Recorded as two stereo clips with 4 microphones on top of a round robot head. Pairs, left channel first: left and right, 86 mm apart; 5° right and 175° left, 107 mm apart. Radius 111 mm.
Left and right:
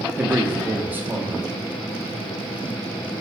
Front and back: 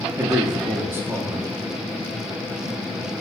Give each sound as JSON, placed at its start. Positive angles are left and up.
{"t": 0.2, "sound": "a man speaking", "azimuth_deg": -140, "distance_m": 0.6}